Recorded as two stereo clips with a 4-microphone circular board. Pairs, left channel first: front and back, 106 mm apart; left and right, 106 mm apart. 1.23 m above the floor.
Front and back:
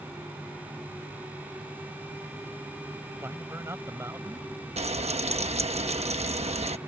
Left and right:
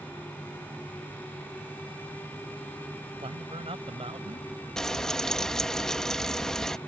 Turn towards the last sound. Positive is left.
turn(degrees=175)